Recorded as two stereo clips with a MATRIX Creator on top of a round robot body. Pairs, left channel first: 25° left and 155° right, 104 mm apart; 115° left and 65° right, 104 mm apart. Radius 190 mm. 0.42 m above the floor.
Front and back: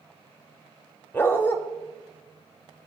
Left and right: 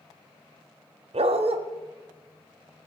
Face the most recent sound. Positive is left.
turn(degrees=-45)